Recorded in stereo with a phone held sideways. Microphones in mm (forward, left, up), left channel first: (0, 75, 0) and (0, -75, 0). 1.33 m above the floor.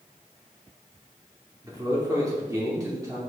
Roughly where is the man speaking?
Right.